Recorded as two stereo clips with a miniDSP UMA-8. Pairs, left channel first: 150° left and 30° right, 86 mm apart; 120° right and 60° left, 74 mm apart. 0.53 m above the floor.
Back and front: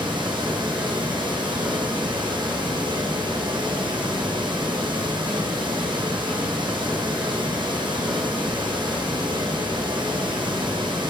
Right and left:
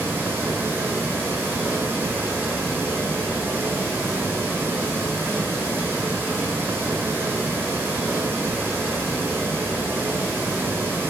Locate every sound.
0.0 s running water: 5° right, 3 m